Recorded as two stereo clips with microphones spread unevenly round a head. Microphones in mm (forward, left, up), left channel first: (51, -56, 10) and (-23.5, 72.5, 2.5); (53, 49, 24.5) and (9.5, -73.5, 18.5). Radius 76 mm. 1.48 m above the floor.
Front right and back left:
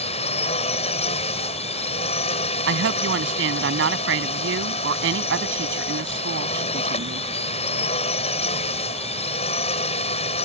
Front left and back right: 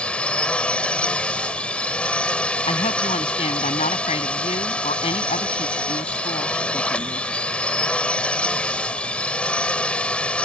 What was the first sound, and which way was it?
A drone, 10° right.